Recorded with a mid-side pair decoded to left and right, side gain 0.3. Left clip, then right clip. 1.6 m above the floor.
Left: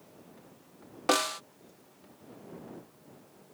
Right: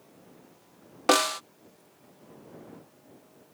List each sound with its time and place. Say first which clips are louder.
1.1 s a snare drum: right 5 dB; 50° right